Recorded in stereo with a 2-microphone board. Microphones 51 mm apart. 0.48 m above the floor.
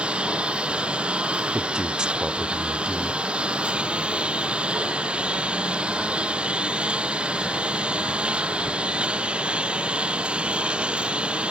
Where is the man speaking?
20° right (ahead or behind).